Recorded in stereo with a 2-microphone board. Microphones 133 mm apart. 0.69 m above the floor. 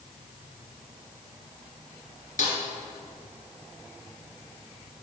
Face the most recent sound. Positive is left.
turn(degrees=70)  # may be behind; listen again after turning